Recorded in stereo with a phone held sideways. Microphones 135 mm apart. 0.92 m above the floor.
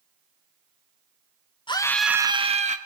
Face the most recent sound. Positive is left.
turn(degrees=-55)  # may be behind; listen again after turning